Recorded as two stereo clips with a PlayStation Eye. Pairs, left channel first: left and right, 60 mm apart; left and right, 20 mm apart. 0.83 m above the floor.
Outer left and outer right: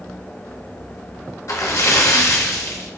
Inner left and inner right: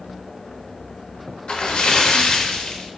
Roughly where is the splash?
Left.